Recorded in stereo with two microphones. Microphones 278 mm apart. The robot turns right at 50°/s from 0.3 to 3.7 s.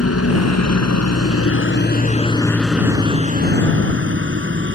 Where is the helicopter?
55° left (ahead or behind); by 4.8 s 45° right (ahead or behind).